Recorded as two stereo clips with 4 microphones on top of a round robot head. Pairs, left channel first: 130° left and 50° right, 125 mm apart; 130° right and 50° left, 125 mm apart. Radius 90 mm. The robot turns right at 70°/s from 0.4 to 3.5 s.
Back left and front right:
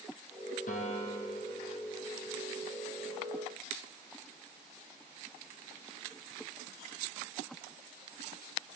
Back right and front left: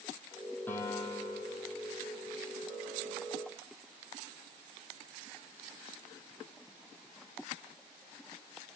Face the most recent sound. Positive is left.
turn(degrees=-10)